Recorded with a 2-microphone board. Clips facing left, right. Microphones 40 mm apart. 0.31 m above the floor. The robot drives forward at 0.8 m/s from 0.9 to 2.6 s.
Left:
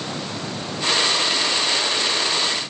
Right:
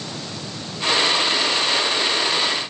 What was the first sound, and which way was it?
Only background noise.